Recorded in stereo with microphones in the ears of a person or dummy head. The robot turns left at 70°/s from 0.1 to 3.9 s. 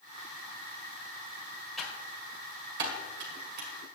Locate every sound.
1.8 s typing on a keyboard: centre (ahead or behind), 1.6 m; by 3.7 s 40° right (ahead or behind), 1.6 m